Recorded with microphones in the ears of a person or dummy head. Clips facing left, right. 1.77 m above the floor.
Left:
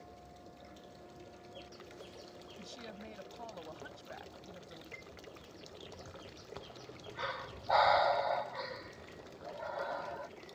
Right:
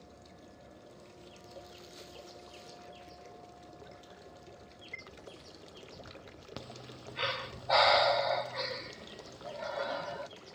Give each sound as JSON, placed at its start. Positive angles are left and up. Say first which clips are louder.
{"t": 2.6, "sound": "a woman speaking", "louder": "left 2 dB", "side_deg": 85}
{"t": 4.9, "sound": "a chime", "louder": "even", "side_deg": -40}
{"t": 6.6, "sound": "breathing", "louder": "right 2 dB", "side_deg": -40}